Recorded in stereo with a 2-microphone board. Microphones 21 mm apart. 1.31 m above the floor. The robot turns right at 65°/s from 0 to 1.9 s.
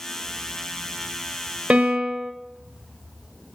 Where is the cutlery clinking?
No cutlery clinking in this recording.